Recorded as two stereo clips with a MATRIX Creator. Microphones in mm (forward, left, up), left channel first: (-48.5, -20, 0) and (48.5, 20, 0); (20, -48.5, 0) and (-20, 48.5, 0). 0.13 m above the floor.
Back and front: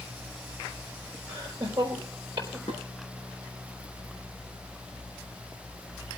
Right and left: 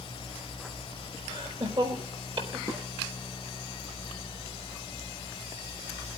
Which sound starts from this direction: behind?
Dishes clattering, at 2.7 s.